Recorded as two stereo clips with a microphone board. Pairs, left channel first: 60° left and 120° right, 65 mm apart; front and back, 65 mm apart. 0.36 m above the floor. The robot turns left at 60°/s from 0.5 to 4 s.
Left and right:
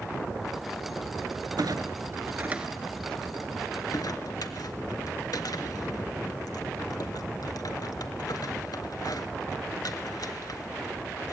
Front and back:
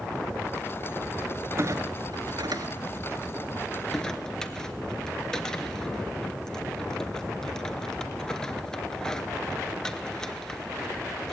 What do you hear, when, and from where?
1.6 s a clunk: 135° right, 0.9 m; by 11.3 s 80° left, 0.9 m